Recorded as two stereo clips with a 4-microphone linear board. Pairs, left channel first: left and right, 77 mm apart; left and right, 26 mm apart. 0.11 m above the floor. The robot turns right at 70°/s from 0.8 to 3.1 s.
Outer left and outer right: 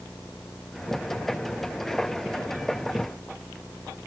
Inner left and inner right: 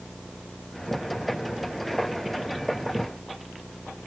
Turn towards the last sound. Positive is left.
No sound to turn to.